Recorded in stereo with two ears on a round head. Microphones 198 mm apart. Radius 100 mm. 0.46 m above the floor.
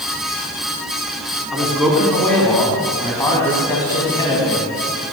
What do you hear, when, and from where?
1.5 s a man speaking: centre (ahead or behind), 4.5 m; by 4.7 s 25° left (ahead or behind), 4 m